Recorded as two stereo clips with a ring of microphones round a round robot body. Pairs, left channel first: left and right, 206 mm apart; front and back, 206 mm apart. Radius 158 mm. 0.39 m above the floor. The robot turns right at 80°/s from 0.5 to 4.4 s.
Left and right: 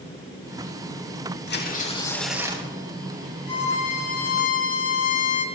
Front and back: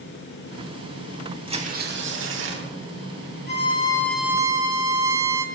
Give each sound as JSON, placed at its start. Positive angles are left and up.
{"t": 1.5, "sound": "tearing paper", "azimuth_deg": 115, "distance_m": 3.5}
{"t": 3.5, "sound": "a violin", "azimuth_deg": 35, "distance_m": 5.5}